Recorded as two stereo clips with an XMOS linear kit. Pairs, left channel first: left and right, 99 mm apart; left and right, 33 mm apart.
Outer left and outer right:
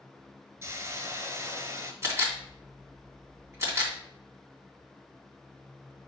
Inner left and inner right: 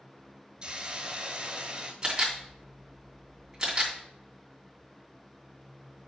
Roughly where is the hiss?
Right.